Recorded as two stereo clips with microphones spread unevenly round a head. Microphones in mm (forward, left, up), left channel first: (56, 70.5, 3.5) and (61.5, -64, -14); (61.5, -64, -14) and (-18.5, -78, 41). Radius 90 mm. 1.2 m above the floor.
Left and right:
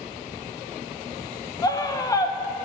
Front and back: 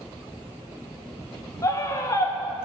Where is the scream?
25° left, 1.0 m.